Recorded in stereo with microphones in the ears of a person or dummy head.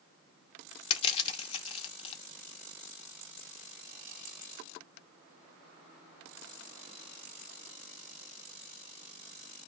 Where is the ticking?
I don't hear ticking.